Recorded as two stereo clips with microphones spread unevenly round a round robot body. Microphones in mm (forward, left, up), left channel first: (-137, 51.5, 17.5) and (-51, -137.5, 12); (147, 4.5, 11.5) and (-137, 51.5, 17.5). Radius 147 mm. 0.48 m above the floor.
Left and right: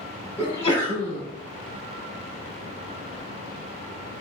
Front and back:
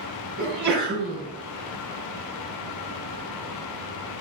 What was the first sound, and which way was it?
A sneeze, straight behind.